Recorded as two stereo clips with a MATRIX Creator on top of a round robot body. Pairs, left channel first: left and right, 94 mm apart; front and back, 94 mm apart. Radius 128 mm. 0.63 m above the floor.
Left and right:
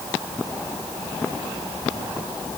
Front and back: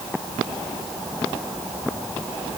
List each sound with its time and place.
Only background noise.